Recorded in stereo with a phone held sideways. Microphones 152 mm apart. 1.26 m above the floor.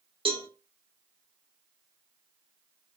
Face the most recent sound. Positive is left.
turn(degrees=-35)  # may be behind; listen again after turning